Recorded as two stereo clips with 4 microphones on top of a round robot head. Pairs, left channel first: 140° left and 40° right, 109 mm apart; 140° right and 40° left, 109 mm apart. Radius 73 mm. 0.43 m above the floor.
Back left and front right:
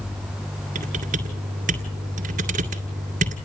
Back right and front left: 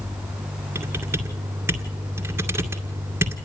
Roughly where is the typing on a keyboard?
Ahead right.